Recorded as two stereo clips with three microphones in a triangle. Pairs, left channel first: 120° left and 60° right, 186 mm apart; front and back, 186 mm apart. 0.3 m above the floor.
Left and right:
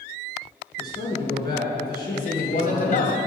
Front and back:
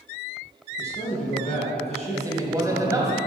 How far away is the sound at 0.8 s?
About 3.5 m.